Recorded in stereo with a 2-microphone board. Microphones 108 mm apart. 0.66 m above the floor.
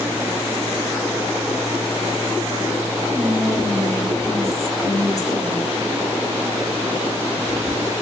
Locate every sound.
3.1 s whispering: 30° left (ahead or behind), 0.9 m